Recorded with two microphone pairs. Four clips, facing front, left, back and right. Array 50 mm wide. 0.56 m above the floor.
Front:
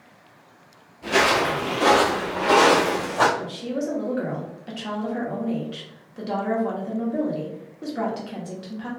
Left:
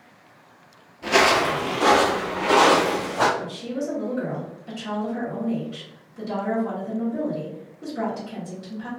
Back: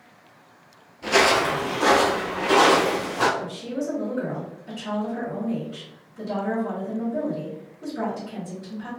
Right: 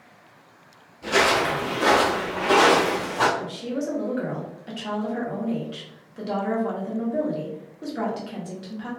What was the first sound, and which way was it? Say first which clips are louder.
Footsteps: left 2 dB, back 1 dB; 115° left.